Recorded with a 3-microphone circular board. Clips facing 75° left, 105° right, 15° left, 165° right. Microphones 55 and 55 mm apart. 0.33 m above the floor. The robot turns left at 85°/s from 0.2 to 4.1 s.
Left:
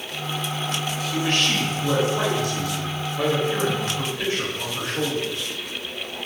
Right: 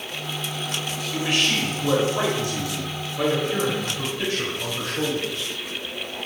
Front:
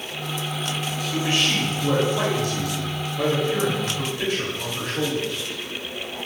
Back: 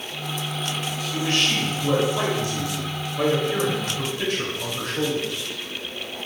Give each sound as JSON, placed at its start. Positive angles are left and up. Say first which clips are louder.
{"t": 1.1, "sound": "a man speaking", "louder": "even, even", "azimuth_deg": -15, "distance_m": 1.0}